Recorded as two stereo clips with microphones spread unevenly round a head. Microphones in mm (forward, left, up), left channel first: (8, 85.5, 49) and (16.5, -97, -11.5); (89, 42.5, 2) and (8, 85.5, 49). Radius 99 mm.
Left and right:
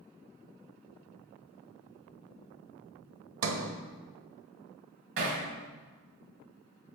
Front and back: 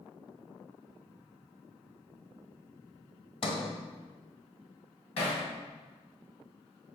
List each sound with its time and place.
3.4 s a sliding door: 70° right, 0.7 m
5.2 s hammering: 70° right, 2 m